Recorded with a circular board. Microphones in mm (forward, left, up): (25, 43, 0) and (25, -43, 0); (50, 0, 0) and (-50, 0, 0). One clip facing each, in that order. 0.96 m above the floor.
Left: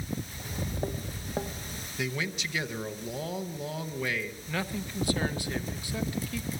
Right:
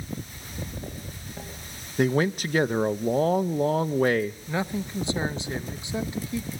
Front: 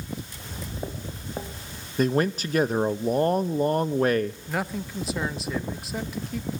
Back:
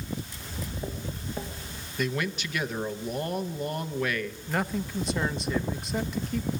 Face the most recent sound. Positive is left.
turn(degrees=-85)